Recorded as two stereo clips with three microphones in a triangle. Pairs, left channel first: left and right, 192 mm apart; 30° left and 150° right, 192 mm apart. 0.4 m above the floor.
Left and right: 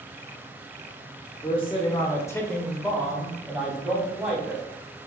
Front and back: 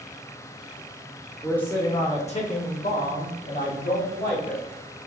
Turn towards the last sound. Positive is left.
turn(degrees=-5)